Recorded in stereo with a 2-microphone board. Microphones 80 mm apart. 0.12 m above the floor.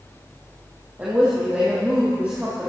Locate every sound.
1.0 s a woman speaking: 20° right (ahead or behind), 4 m